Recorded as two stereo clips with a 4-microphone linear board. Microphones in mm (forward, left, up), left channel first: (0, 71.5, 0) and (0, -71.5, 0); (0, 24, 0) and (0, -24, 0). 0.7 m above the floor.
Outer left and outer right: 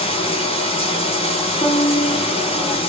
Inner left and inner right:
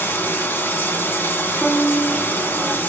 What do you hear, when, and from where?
0.0 s running water: 45° left (ahead or behind), 0.7 m
1.6 s a violin: 50° left (ahead or behind), 1.4 m